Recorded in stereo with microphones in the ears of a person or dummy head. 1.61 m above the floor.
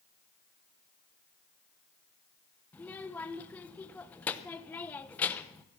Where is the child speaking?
10° left (ahead or behind), 0.9 m.